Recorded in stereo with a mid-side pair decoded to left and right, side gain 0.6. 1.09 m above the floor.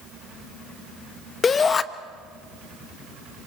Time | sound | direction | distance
1.4 | a shout | 35° left | 1.2 m